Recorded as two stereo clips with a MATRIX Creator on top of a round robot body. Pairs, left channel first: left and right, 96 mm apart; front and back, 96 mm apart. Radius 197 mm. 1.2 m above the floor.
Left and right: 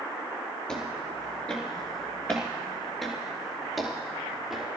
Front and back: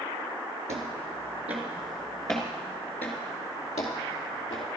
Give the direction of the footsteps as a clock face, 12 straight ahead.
6 o'clock.